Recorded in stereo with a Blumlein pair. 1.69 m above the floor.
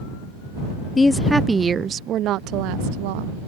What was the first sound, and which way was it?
A woman speaking, 15° left.